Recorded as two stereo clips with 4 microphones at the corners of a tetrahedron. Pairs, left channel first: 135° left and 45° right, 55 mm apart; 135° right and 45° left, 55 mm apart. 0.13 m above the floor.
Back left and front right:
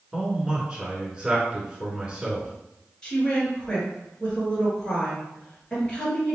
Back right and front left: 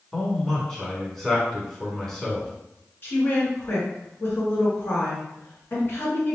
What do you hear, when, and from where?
0.1 s a man speaking: 55° right, 1.1 m
3.0 s a woman speaking: 155° right, 1.5 m